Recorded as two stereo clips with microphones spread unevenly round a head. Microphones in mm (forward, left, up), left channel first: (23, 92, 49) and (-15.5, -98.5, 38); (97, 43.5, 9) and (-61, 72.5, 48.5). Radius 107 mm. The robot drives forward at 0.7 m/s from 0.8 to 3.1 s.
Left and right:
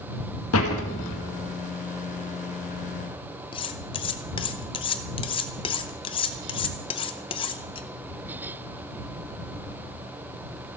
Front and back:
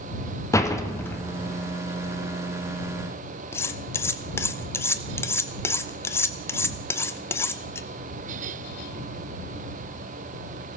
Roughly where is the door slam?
Ahead left.